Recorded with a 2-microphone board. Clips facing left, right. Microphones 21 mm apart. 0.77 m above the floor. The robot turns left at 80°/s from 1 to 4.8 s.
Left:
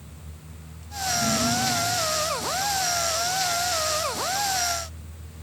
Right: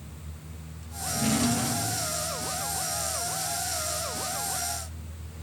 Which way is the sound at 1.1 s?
145° right.